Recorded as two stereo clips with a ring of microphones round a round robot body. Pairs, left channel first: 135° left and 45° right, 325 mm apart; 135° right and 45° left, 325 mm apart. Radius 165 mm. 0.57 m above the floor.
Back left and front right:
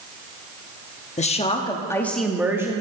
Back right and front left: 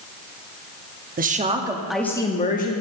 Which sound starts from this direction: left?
A woman speaking, at 1.2 s.